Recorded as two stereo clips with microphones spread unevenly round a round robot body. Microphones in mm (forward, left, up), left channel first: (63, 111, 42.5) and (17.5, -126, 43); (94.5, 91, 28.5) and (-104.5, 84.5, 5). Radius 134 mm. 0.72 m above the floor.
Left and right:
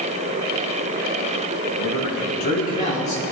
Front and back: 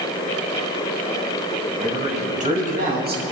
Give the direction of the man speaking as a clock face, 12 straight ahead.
8 o'clock.